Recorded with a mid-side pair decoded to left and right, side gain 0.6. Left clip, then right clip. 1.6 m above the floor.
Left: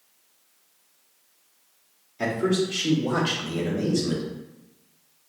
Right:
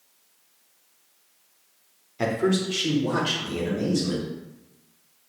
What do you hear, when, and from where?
2.2 s a man speaking: 25° right, 1.3 m; by 4.3 s straight ahead, 2 m